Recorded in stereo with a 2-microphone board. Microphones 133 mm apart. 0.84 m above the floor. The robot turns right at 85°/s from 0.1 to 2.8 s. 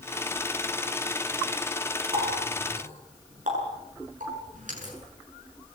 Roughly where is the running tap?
Right.